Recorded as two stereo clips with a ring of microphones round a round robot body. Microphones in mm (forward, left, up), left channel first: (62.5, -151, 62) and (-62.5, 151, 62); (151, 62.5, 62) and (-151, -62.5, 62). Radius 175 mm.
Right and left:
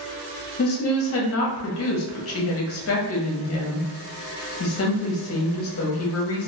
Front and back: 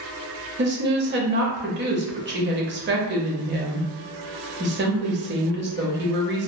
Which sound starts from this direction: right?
A woman speaking, at 0.6 s.